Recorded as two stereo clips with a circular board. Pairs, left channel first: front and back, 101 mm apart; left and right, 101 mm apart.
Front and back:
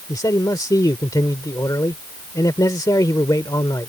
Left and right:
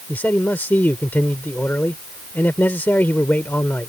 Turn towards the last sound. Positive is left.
turn(degrees=30)